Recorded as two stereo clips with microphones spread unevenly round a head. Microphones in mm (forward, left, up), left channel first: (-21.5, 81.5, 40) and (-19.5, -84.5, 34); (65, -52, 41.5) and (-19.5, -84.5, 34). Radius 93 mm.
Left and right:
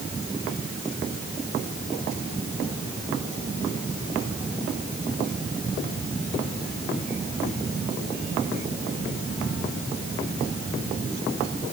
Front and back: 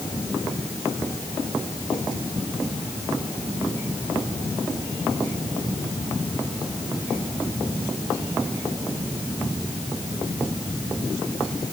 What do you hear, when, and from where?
Only background noise.